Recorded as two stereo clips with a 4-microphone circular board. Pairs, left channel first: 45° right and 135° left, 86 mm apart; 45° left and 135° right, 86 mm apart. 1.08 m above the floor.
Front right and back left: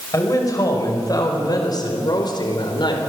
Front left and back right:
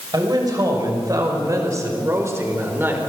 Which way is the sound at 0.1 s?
95° right.